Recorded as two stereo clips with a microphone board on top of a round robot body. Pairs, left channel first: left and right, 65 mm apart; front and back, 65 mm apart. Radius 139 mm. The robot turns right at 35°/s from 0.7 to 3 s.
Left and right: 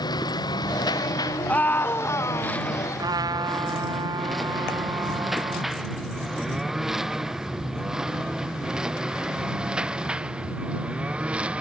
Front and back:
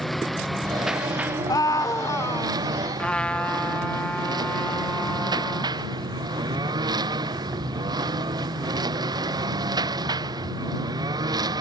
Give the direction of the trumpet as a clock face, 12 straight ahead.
2 o'clock.